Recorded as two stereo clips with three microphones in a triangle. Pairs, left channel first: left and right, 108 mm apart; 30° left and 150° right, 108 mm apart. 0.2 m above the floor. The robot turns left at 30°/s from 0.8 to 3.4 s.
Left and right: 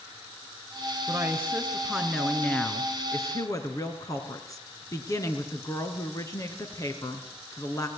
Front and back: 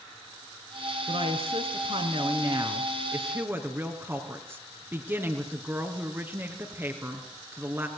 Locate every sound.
1.1 s a woman speaking: 145° right, 3.5 m; by 7.9 s 145° left, 3.5 m